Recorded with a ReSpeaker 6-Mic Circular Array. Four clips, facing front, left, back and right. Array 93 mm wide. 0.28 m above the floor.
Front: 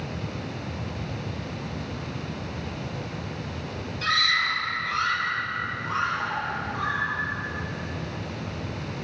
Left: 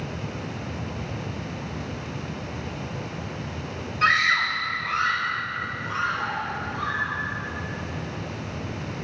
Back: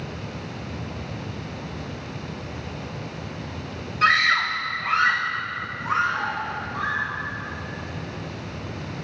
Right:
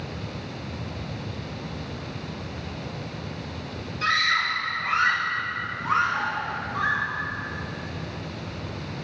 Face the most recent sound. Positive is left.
turn(degrees=-115)